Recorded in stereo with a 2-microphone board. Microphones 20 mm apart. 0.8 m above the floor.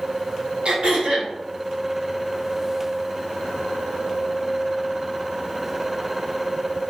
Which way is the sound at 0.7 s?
65° right (ahead or behind).